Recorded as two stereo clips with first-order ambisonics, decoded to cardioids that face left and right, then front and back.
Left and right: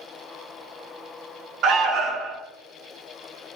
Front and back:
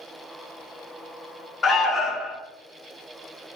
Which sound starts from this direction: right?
An alarm, at 1.6 s.